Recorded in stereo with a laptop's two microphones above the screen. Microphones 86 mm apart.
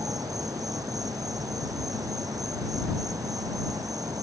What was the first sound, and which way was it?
An insect, 45° right (ahead or behind).